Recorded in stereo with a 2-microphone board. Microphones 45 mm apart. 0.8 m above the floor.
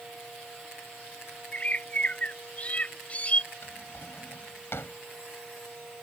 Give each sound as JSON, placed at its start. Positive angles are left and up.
{"t": 1.5, "sound": "a bird", "side_deg": 30}
{"t": 3.6, "sound": "a drawer", "side_deg": 65}